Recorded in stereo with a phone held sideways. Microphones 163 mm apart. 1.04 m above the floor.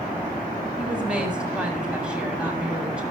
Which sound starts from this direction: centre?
A woman speaking, at 0.8 s.